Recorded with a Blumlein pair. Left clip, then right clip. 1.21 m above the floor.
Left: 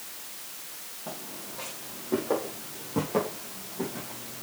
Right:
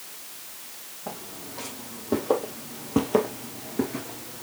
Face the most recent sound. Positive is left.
turn(degrees=20)